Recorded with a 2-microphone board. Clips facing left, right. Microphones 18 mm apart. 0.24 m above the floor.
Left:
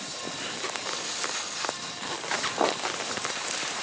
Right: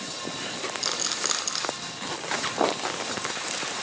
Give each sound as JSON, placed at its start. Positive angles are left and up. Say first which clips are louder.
{"t": 0.8, "sound": "a rattle", "louder": "right 4 dB", "side_deg": -65, "distance_m": 2.5}